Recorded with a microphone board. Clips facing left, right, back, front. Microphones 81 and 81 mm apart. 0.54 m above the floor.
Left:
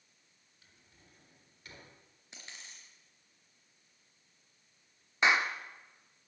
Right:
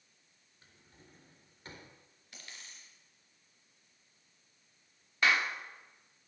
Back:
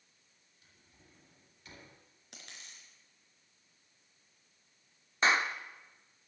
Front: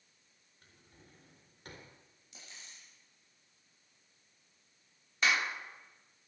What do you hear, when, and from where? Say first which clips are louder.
0.6 s a drawer: right 4 dB, front 4 dB; 35° right, 3.5 m
2.3 s a dropped coin: left 1 dB, back 1 dB; 160° left, 3.5 m
5.2 s a clap: left 2 dB, back 3 dB; 145° left, 0.9 m